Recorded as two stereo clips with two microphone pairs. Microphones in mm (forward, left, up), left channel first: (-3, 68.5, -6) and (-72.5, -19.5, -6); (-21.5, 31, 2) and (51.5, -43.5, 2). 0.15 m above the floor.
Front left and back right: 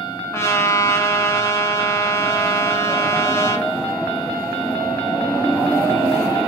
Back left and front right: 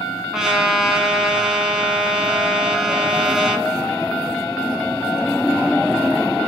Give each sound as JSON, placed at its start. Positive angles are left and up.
{"t": 0.3, "sound": "a trumpet", "azimuth_deg": 30, "distance_m": 0.6}